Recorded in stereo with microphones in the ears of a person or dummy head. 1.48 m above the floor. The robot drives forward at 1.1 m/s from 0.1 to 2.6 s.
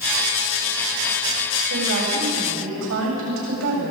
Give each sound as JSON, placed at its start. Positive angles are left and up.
{"t": 1.7, "sound": "a woman speaking", "side_deg": -80, "distance_m": 7.0}